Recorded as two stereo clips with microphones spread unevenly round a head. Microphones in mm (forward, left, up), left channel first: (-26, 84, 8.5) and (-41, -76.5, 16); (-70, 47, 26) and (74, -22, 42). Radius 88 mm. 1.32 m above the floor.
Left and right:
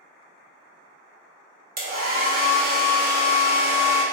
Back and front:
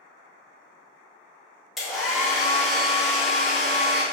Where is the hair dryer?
110° right, 1.2 m.